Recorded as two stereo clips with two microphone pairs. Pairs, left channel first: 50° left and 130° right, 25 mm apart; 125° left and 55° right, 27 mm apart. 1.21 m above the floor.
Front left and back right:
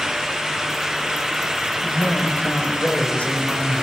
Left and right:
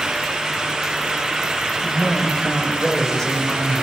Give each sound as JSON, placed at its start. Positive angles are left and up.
{"t": 1.8, "sound": "a man speaking", "azimuth_deg": 55, "distance_m": 5.0}